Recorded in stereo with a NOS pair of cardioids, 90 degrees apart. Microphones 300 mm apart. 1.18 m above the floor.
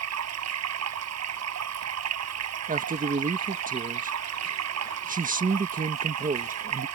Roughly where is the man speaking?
Ahead right.